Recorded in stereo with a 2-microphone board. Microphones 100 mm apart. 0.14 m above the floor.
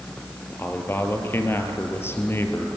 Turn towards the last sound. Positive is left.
turn(degrees=25)  # may be behind; listen again after turning